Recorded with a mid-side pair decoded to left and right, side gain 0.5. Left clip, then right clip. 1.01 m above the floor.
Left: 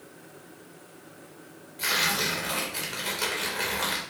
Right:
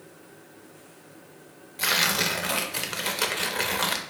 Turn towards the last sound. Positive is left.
turn(degrees=-50)